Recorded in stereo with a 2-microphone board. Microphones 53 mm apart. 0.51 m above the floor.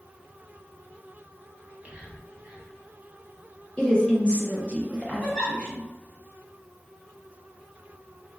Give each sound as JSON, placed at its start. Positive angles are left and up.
{"t": 1.6, "sound": "whispering", "side_deg": -25, "distance_m": 0.8}
{"t": 3.8, "sound": "a woman speaking", "side_deg": 20, "distance_m": 0.7}
{"t": 5.2, "sound": "a giggle", "side_deg": 5, "distance_m": 1.1}